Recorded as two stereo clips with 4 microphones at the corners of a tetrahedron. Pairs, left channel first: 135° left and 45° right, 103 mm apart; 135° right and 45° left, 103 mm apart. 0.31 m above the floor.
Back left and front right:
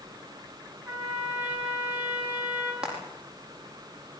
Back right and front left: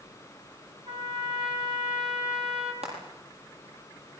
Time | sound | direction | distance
0.9 | a trumpet | 25° left | 5 m
2.8 | frying | 35° left | 10 m